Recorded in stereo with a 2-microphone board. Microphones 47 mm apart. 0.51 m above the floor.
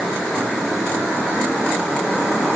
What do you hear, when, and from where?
Only background noise.